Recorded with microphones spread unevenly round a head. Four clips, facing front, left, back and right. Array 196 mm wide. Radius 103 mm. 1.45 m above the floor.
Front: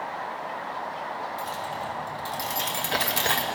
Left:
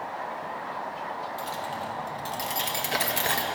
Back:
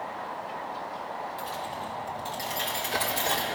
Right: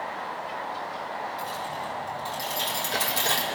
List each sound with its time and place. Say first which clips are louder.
1.4 s keys jangling: even, front 3 dB; 70° left, 1.7 m; by 3.5 s 5° right, 0.9 m